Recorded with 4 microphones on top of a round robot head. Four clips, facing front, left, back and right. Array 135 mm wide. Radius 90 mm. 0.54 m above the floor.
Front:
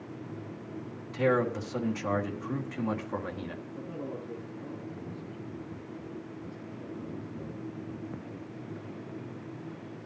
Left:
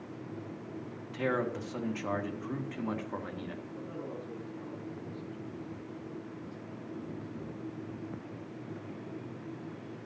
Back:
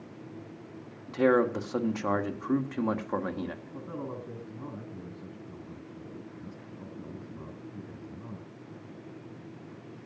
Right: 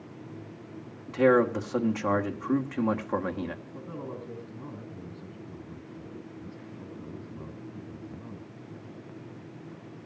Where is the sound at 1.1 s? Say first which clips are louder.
Right 10 dB, back 3 dB; 130° right, 1.9 m.